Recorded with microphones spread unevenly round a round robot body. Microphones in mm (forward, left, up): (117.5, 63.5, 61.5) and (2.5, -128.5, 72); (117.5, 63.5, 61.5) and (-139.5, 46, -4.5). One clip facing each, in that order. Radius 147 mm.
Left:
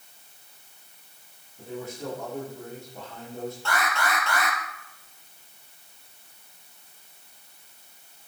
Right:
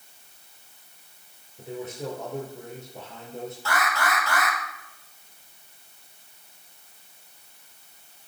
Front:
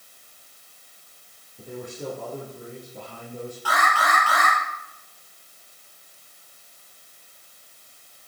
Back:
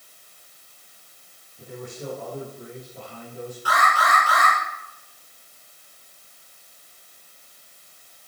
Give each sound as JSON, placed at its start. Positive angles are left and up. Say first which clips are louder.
{"t": 1.6, "sound": "a man speaking", "louder": "right 1 dB, front 2 dB", "azimuth_deg": -50, "distance_m": 6.5}
{"t": 3.6, "sound": "an alarm", "louder": "right 3 dB, back 2 dB", "azimuth_deg": -35, "distance_m": 5.0}